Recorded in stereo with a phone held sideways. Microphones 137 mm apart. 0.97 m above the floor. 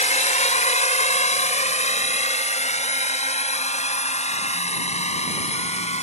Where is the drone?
70° left (ahead or behind); by 6.0 s 60° left (ahead or behind).